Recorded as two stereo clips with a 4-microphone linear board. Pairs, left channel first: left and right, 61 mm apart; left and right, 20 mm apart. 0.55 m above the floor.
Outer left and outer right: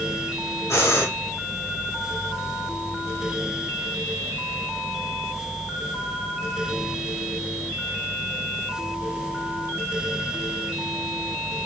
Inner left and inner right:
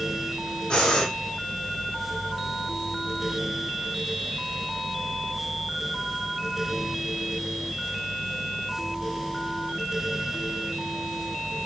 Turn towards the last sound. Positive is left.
turn(degrees=50)  # may be behind; listen again after turning